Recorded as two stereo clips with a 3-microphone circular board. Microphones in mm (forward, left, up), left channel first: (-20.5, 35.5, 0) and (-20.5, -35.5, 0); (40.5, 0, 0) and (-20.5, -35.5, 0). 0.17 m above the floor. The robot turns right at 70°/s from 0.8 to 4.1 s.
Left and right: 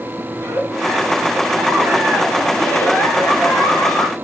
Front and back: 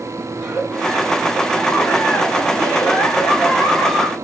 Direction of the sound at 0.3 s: 90° right.